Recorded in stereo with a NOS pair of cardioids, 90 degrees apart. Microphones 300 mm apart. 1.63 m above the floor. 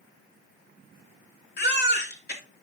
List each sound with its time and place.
1.6 s a baby crying: 35° left, 2.5 m